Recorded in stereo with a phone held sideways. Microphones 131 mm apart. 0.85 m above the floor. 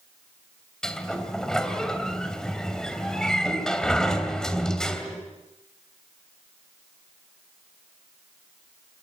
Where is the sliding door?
5° left (ahead or behind), 3 m.